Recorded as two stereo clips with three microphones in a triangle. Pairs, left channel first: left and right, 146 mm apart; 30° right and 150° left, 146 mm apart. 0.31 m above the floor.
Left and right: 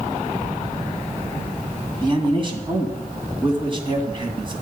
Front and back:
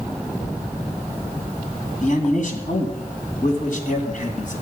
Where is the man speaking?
40° right, 2.5 m.